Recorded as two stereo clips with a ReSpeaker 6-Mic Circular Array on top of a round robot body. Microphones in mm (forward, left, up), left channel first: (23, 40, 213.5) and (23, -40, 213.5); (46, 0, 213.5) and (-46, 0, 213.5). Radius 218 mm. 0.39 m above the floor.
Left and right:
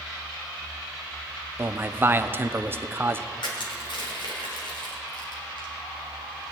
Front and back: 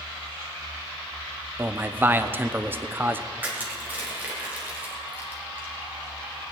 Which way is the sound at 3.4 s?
110° left.